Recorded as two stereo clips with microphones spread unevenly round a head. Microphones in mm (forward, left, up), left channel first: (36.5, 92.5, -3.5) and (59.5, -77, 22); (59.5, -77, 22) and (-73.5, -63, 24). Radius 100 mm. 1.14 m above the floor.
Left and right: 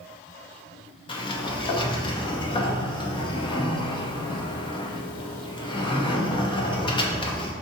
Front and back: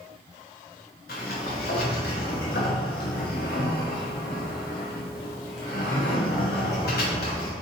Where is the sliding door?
30° left, 0.8 m.